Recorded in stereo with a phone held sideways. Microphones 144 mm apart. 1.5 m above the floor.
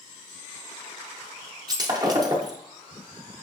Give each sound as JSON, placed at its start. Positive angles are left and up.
{"t": 1.7, "sound": "breaking glass", "side_deg": -30, "distance_m": 0.6}